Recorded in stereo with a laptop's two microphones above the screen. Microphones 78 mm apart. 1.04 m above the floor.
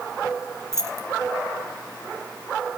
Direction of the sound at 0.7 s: 40° right (ahead or behind).